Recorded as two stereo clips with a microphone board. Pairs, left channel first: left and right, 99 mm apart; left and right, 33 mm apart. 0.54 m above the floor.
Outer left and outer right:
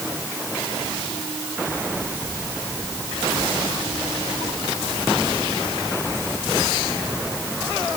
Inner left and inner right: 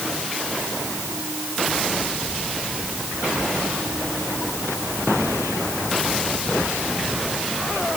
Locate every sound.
Only background noise.